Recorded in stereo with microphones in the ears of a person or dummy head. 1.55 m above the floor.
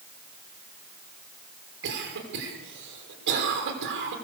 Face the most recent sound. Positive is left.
turn(degrees=-65)  # may be behind; listen again after turning